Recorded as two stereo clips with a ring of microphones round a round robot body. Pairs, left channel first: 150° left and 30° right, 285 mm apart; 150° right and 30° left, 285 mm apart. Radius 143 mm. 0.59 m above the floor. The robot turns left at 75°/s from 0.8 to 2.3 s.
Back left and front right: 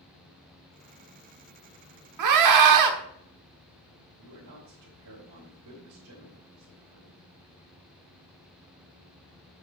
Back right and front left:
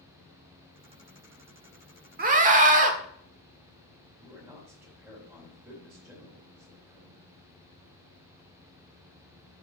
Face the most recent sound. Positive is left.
turn(degrees=-55)